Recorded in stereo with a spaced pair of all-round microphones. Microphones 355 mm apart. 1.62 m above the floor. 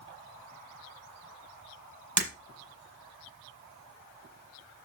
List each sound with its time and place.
2.2 s breaking glass: 55° right (ahead or behind), 4.5 m